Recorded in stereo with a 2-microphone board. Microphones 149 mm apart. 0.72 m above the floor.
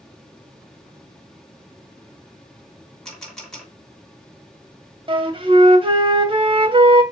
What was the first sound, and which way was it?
A camera shutter, 5° left (ahead or behind).